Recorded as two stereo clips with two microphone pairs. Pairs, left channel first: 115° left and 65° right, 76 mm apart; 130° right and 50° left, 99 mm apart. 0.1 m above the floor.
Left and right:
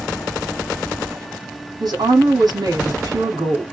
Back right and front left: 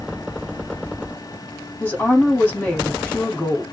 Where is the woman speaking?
60° right, 4 m.